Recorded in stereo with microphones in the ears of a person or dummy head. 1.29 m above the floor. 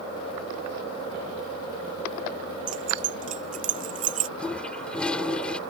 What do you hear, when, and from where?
2.7 s keys jangling: 40° right (ahead or behind)
4.4 s a toilet flushing: 5° left (ahead or behind)